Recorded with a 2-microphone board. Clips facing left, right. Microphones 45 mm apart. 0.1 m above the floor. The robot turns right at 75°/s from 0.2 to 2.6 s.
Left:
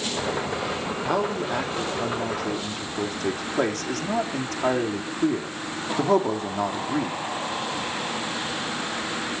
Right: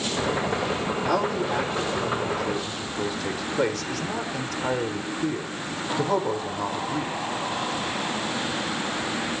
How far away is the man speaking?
About 4 m.